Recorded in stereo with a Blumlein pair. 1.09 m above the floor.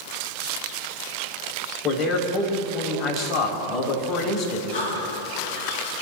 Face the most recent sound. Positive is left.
turn(degrees=50)